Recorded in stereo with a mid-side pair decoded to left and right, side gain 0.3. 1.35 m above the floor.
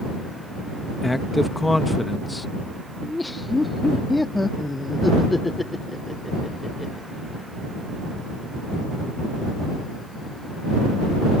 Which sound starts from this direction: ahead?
A man speaking, at 1.0 s.